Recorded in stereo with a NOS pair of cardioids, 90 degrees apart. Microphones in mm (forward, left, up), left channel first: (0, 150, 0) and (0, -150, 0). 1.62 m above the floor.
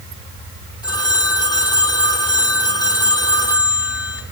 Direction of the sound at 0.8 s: 15° left.